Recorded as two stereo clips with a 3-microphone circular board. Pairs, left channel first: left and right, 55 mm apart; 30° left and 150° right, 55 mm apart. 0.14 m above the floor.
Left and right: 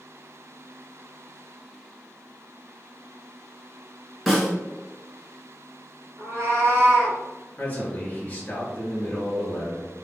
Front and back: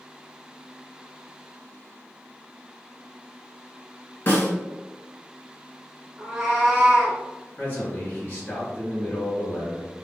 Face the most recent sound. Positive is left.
turn(degrees=65)